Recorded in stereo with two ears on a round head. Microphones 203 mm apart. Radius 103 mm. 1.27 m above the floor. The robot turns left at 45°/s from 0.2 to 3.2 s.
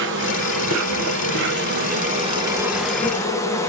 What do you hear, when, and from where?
0.0 s an insect: 60° right, 1.6 m; by 3.7 s 165° left, 1.6 m